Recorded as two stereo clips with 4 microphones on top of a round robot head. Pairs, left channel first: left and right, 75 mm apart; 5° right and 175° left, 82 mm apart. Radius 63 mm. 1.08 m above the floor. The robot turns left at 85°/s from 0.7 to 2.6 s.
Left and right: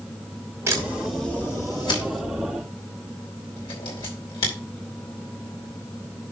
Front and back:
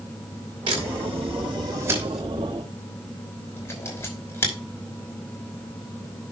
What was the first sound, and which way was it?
A camera shutter, 140° right.